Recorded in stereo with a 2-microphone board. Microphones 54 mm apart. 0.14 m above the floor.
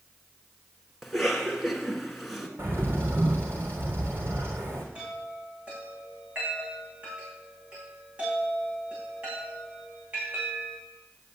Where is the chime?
20° right (ahead or behind), 8.5 m.